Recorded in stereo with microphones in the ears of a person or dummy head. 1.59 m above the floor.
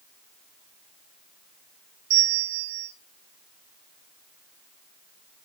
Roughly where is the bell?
Right.